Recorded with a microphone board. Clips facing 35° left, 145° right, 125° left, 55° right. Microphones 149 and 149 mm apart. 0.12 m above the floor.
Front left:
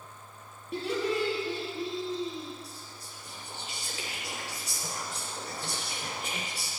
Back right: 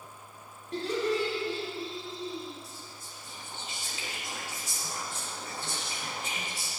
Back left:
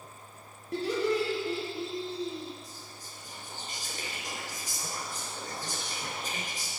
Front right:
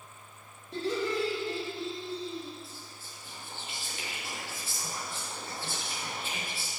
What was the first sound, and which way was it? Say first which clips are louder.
Laughter: back right 1 dB, back left 3 dB; 115° left.